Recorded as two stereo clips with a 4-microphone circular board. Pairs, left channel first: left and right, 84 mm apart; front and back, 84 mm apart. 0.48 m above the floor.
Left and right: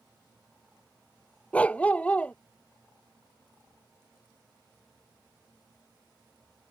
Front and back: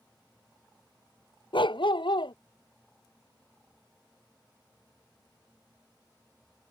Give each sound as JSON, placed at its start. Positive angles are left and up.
{"t": 1.5, "sound": "a dog barking", "azimuth_deg": 15}